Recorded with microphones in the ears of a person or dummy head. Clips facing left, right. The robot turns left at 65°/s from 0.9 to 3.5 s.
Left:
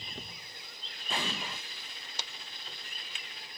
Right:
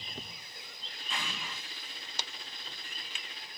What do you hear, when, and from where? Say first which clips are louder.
1.1 s an explosion: left 5 dB; 20° left (ahead or behind), 0.5 m